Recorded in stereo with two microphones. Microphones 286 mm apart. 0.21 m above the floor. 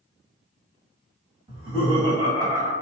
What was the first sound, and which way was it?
Laughter, 20° right (ahead or behind).